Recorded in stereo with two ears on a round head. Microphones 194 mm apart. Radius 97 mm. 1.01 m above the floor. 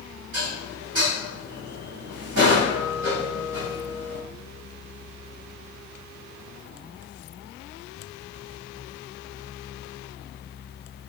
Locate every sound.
0.3 s dishes clattering: 90° right, 4 m